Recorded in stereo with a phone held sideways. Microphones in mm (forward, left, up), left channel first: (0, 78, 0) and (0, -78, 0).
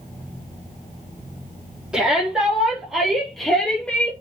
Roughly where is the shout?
Centre.